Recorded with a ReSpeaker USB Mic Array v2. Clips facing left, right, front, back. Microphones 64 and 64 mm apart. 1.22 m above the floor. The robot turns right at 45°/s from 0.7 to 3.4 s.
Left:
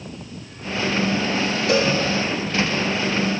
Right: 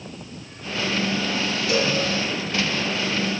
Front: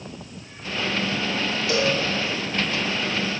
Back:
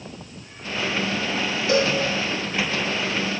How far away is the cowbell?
About 1.4 m.